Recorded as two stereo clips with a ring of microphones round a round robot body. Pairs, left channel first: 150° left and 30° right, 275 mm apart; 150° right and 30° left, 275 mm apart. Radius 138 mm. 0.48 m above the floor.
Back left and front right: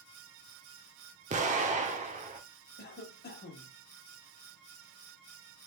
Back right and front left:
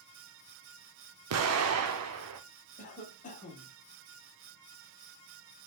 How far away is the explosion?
About 0.7 m.